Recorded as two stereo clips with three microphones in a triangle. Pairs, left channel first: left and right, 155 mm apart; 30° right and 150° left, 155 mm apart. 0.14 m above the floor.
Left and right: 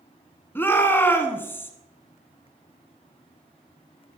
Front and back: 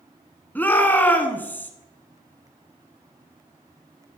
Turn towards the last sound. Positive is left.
turn(degrees=35)